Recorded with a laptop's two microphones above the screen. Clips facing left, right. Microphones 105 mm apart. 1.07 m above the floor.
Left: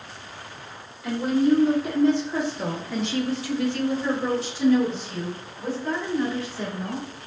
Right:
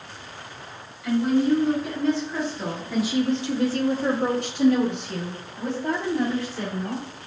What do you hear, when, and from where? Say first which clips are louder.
1.0 s a woman speaking: right 1 dB; 35° left (ahead or behind), 1.4 m; by 7.0 s 60° right (ahead or behind), 2 m